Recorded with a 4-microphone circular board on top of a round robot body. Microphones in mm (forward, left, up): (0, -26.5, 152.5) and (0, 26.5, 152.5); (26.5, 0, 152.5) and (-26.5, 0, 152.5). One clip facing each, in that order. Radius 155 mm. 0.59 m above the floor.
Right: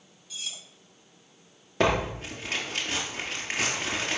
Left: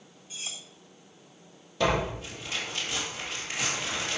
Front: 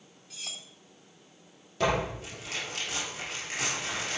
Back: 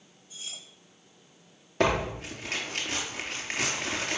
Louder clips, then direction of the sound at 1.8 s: Right 2 dB, back 2 dB; 135° right.